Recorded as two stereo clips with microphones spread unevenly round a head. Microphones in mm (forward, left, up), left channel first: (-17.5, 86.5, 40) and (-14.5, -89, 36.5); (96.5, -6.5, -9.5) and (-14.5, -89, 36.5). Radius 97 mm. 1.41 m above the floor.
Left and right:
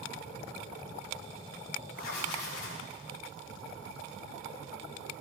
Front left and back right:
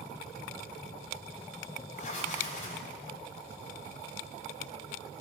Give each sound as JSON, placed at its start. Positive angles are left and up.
{"t": 1.9, "sound": "writing", "azimuth_deg": 95, "distance_m": 1.6}